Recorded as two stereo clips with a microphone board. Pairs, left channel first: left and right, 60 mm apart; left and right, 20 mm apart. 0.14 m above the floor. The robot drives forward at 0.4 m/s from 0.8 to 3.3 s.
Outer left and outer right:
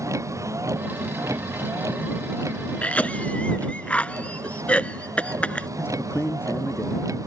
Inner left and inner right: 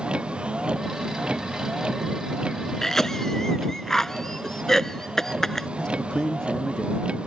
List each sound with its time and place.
0.0 s a vehicle: 60° right (ahead or behind); by 7.3 s 65° right (ahead or behind)
2.8 s a cough: 25° left (ahead or behind); by 5.7 s 20° left (ahead or behind)
5.8 s a man speaking: 40° left (ahead or behind)